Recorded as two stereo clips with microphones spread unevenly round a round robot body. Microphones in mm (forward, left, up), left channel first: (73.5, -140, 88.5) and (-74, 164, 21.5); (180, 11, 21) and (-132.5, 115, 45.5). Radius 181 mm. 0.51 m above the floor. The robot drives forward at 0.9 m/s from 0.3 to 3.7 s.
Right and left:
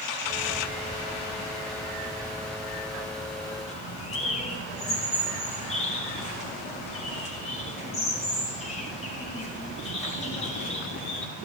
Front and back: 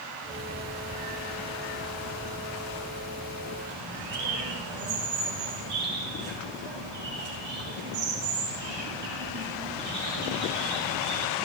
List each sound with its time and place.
3.7 s a bird: 135° right, 4.5 m